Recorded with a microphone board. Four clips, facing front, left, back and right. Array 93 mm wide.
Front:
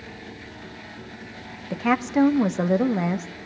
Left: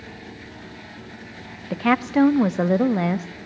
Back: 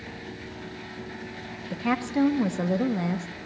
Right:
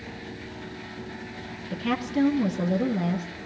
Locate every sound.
1.7 s a woman speaking: 70° left, 1.5 m